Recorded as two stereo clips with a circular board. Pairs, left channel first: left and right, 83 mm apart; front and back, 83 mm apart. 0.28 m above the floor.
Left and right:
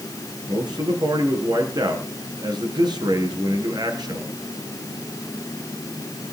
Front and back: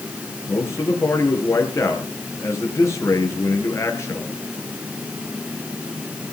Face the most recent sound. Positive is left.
turn(degrees=-55)